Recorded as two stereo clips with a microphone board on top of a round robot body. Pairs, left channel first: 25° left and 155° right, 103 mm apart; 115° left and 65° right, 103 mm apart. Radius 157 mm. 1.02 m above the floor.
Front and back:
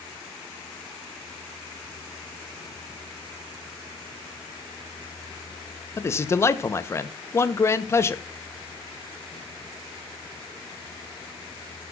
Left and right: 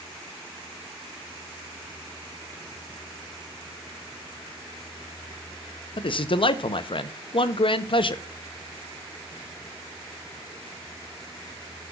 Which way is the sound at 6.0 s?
85° left.